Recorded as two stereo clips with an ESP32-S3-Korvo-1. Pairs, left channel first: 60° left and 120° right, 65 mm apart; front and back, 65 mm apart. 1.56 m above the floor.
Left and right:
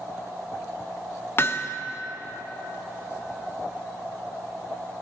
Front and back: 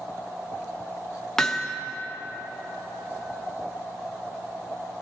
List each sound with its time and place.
1.4 s hammering: 80° left, 0.7 m